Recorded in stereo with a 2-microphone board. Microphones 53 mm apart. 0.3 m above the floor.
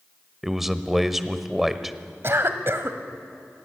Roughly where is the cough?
Right.